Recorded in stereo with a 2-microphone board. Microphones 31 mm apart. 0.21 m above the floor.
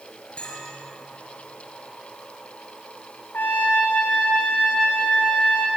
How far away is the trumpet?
About 5.5 m.